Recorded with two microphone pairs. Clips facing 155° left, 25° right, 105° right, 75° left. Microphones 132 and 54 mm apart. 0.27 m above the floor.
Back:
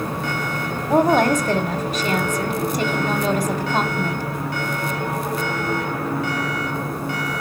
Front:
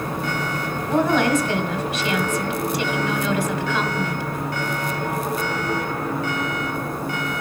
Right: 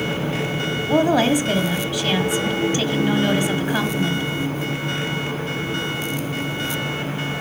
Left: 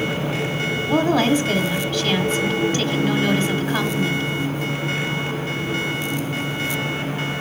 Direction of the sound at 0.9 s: 175° right.